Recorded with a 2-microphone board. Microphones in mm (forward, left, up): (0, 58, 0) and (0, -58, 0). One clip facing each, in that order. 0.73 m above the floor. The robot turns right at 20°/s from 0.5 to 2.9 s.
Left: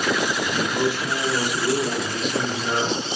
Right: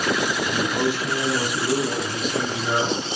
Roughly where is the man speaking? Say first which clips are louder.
Even; behind left.